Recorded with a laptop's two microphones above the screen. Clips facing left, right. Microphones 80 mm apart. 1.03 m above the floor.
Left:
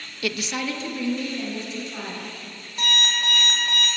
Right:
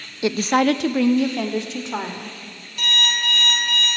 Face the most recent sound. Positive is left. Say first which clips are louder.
# right 1 dB
turn(degrees=25)  # may be behind; listen again after turning